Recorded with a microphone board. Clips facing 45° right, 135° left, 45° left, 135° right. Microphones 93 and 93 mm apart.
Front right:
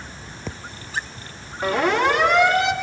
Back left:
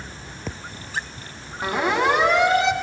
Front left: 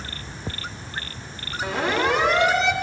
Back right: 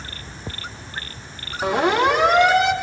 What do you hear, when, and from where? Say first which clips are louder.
1.6 s a siren: front right 2 dB, back right 5 dB; 150° right, 5.5 m; by 2.7 s 155° right, 5 m